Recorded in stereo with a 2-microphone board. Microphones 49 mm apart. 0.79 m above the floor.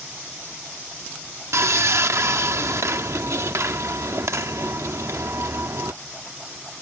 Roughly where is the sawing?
Right.